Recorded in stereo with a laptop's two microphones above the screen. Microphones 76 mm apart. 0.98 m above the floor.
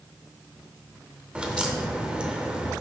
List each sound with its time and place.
1.4 s a crack: 15° right (ahead or behind), 0.7 m